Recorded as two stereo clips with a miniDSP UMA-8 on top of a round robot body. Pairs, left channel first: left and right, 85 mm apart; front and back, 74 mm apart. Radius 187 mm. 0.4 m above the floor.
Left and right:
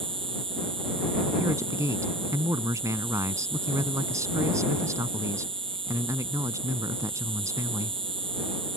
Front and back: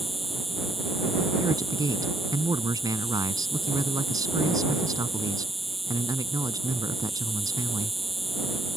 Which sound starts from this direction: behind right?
A man speaking, at 1.4 s.